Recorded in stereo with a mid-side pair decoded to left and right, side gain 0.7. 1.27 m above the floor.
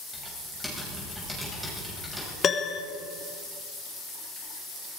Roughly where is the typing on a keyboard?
Ahead.